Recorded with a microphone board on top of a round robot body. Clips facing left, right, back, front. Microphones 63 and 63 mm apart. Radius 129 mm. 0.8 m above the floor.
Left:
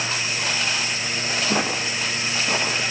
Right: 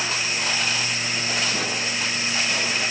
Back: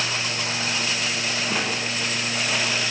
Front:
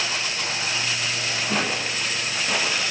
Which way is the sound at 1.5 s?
90° left.